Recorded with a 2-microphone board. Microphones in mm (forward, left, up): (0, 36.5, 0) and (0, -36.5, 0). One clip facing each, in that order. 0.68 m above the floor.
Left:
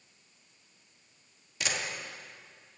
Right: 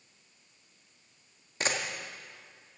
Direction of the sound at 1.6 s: 40° right (ahead or behind).